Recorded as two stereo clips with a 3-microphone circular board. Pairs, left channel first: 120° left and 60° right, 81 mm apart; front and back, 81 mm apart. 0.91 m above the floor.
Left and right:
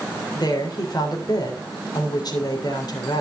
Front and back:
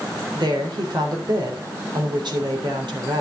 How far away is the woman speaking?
About 3.5 m.